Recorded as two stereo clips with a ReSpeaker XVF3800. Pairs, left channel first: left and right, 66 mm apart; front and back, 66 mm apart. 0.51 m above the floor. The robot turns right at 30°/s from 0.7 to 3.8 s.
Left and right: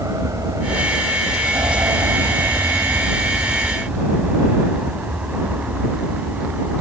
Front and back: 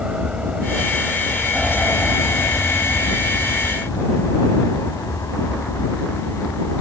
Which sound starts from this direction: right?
An aircraft, at 0.0 s.